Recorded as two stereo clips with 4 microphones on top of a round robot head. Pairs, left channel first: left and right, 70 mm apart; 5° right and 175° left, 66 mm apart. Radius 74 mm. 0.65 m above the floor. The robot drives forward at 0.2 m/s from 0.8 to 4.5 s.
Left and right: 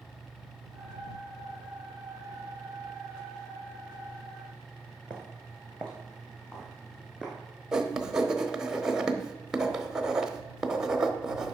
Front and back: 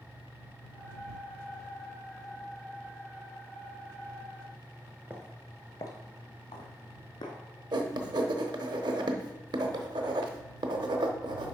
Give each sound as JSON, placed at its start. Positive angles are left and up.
{"t": 5.1, "sound": "footsteps", "azimuth_deg": 160, "distance_m": 0.6}
{"t": 7.7, "sound": "writing", "azimuth_deg": -170, "distance_m": 0.8}